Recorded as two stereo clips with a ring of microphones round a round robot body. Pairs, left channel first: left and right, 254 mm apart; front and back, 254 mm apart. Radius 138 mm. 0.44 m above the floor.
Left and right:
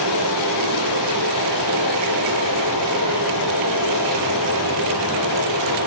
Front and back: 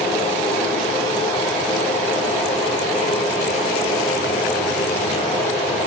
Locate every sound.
0.0 s running water: 90° right, 9.5 m